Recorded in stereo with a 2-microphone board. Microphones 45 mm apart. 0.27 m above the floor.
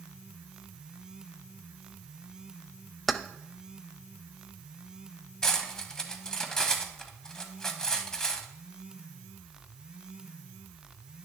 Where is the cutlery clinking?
15° left (ahead or behind), 1.0 m.